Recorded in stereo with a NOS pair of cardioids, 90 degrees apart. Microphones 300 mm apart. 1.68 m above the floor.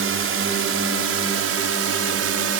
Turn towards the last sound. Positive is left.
turn(degrees=-55)